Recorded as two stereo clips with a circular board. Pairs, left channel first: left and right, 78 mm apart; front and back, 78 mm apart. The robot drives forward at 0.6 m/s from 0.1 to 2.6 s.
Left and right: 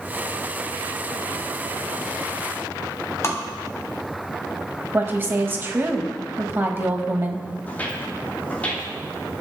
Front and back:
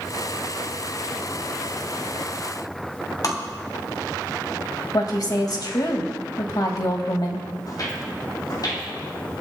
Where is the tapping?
40° left, 3 m.